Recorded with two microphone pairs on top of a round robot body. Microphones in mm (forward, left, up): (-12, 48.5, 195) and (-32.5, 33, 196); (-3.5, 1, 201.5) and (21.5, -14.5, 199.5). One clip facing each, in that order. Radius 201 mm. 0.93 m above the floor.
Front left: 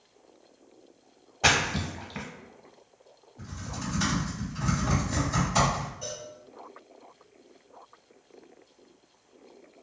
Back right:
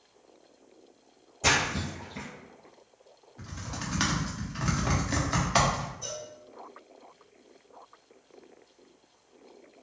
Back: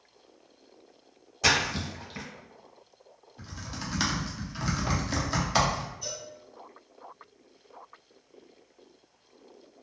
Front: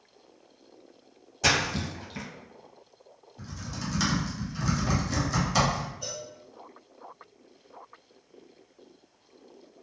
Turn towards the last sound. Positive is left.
turn(degrees=5)